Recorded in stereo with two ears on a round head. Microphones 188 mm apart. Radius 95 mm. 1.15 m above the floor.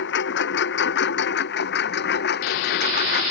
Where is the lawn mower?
60° left (ahead or behind); by 3.3 s 55° left (ahead or behind).